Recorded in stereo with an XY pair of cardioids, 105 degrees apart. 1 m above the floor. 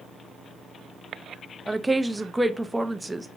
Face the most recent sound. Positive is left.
turn(degrees=-10)